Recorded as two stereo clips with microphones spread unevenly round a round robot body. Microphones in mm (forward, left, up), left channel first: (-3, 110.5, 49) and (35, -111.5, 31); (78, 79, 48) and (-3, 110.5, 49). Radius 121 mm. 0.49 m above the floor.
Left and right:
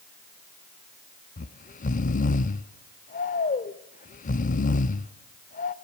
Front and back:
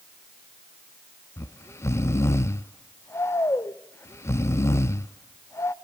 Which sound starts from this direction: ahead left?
Snoring, at 1.4 s.